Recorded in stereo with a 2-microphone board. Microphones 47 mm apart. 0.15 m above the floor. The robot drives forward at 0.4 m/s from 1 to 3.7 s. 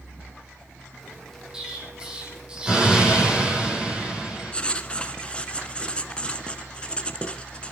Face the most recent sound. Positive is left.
turn(degrees=20)  # may be behind; listen again after turning